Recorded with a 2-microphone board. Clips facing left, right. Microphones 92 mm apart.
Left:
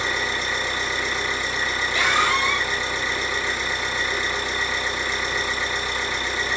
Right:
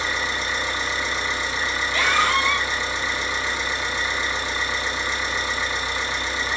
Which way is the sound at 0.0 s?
45° left (ahead or behind).